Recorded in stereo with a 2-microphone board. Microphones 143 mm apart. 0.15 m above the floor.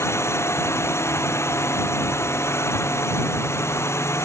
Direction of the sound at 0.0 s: 20° left (ahead or behind).